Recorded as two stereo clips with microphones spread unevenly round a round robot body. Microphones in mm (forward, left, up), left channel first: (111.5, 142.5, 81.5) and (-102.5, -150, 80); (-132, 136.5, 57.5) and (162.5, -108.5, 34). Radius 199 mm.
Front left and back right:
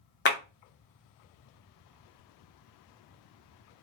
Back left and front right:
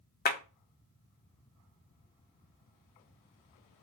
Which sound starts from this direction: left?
A clap, at 0.2 s.